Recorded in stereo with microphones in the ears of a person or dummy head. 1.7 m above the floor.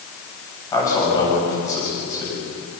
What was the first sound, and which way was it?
A man speaking, 25° left (ahead or behind).